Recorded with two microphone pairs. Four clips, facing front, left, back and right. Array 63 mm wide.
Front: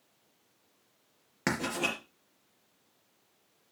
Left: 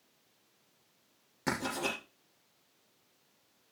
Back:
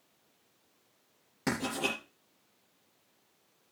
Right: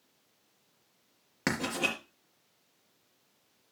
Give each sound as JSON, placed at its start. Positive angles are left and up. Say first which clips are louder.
{"t": 1.5, "sound": "writing", "louder": "right 3 dB, front 1 dB", "azimuth_deg": -45, "distance_m": 4.0}